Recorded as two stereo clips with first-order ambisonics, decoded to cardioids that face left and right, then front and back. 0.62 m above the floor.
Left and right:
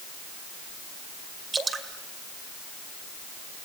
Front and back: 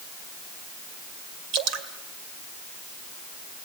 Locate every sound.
1.5 s dripping: 160° right, 2 m